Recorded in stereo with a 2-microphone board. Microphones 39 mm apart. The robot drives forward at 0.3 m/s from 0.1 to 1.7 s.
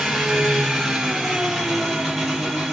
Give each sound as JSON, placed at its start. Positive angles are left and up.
{"t": 0.0, "sound": "an engine running", "side_deg": 0, "distance_m": 3.0}